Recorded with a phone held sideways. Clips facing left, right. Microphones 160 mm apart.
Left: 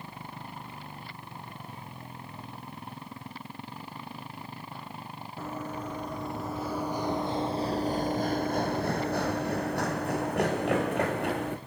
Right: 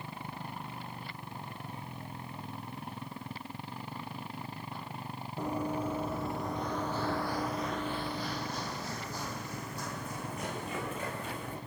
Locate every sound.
5.4 s running footsteps: 15° right (ahead or behind), 2 m; by 11.6 s 70° left (ahead or behind), 3.5 m